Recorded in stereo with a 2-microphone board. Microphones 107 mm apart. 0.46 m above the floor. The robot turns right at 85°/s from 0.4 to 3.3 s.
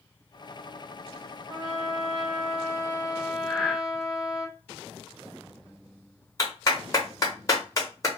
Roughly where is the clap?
Left.